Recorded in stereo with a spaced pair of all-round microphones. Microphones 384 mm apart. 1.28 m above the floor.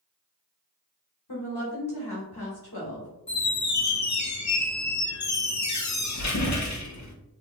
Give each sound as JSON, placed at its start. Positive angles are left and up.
{"t": 1.3, "sound": "a woman speaking", "side_deg": 75, "distance_m": 1.3}
{"t": 3.3, "sound": "a squeak", "side_deg": 45, "distance_m": 0.6}